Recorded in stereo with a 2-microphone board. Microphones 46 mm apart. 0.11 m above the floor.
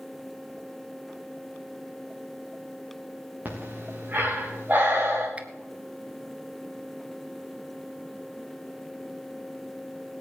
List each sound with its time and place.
3.5 s breathing: 40° right (ahead or behind), 4.5 m
5.4 s a finger snap: 30° right (ahead or behind), 1.2 m